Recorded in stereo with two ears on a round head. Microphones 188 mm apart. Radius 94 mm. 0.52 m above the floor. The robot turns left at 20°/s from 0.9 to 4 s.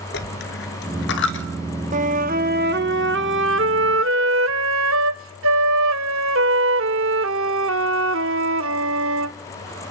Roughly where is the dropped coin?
Left.